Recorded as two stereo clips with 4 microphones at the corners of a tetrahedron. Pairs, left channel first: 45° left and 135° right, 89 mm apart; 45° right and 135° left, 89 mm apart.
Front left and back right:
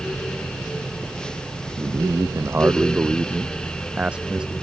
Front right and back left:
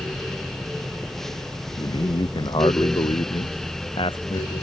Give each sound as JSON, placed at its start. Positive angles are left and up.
{"t": 1.8, "sound": "a man speaking", "azimuth_deg": -80}